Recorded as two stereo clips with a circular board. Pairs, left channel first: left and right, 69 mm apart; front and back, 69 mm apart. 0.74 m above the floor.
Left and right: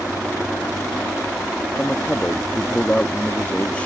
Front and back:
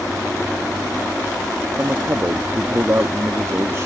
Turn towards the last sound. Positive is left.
turn(degrees=150)